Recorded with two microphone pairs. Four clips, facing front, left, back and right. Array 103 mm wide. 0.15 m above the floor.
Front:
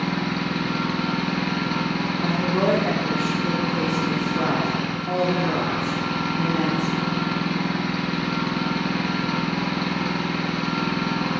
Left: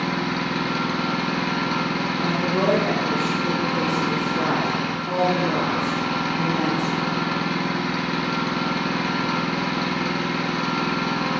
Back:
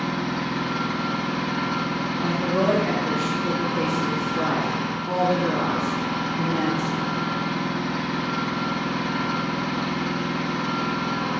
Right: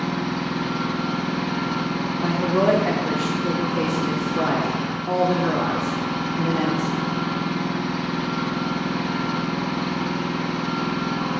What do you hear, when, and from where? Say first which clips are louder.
0.0 s an engine running: left 1 dB, front 1 dB; 65° left, 2.5 m
2.2 s a woman speaking: right 3 dB, even; 70° right, 6.5 m